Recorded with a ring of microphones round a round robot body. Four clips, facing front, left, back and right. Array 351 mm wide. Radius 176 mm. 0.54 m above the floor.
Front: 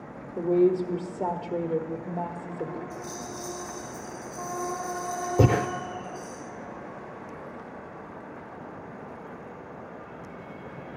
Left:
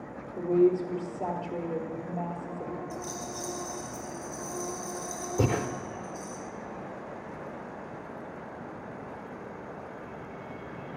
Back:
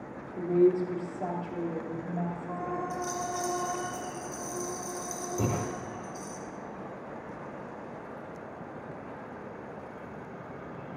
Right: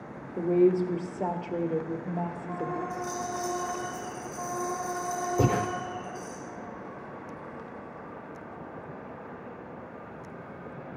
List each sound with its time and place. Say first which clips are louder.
0.4 s a woman speaking: right 1 dB, front 2 dB; 35° right, 1.0 m
2.9 s a rattle: right 4 dB, back 4 dB; 150° left, 4 m
5.4 s breathing: right 1 dB, front 9 dB; 5° left, 0.6 m